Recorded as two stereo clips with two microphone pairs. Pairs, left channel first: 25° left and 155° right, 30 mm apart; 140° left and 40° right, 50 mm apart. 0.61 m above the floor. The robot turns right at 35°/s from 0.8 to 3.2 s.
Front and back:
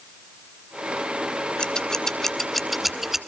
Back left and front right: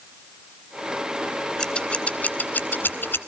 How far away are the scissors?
About 1.2 m.